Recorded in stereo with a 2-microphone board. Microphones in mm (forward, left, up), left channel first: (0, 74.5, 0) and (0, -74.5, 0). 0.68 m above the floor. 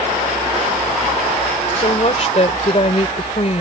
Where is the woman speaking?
45° left (ahead or behind).